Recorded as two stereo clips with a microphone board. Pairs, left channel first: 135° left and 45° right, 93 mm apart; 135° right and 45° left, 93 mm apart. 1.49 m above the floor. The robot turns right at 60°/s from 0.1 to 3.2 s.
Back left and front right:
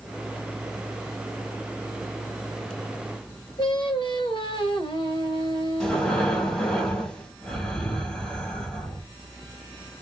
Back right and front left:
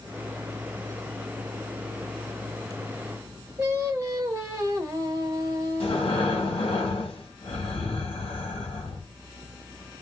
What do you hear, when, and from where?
3.6 s singing: 105° left, 1.2 m
5.8 s breathing: 145° right, 1.0 m